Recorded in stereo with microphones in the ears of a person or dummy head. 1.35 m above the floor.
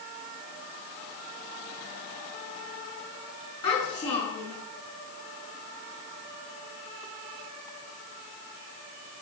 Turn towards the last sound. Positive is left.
turn(degrees=20)  # may be behind; listen again after turning